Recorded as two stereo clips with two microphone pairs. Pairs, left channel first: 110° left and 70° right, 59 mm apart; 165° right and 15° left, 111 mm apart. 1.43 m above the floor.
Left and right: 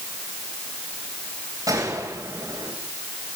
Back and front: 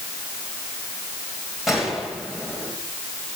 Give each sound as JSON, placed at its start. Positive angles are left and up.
{"t": 1.7, "sound": "a gunshot", "azimuth_deg": -75, "distance_m": 9.5}